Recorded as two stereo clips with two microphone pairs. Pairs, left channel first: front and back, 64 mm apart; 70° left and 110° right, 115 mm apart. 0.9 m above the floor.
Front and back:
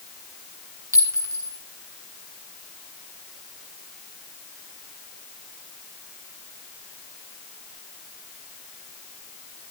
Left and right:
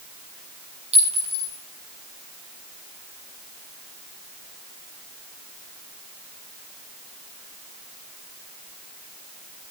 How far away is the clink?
About 6 m.